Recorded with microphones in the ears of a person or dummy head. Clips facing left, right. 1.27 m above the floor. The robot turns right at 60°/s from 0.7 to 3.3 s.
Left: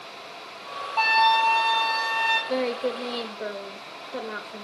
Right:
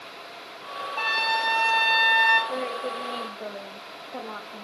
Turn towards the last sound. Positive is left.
turn(degrees=150)